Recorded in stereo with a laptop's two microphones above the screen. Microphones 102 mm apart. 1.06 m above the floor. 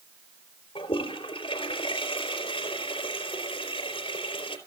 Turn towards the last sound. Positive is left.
turn(degrees=65)  # may be behind; listen again after turning